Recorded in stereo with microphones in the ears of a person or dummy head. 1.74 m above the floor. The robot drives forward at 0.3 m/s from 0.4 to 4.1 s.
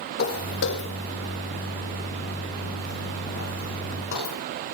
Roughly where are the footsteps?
Left.